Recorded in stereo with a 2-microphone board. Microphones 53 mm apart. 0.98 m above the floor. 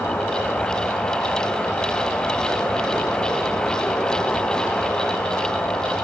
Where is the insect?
45° left (ahead or behind), 3.5 m.